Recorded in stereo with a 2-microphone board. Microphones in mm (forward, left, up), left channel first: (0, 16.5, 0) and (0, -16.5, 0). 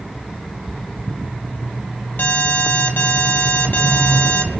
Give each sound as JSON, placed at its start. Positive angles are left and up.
{"t": 2.2, "sound": "an alarm", "side_deg": 70, "distance_m": 2.5}